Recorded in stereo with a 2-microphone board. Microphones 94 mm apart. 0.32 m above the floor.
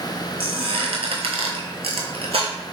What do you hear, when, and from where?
0.4 s a squeak: 80° right, 0.8 m